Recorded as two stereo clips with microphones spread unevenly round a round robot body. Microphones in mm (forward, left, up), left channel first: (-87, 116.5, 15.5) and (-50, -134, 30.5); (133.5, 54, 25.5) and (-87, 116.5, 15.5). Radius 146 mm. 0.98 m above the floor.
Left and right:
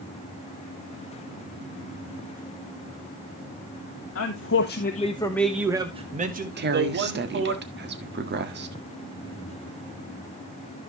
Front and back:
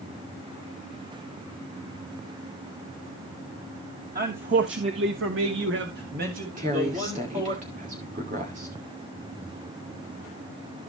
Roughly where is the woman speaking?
Behind right.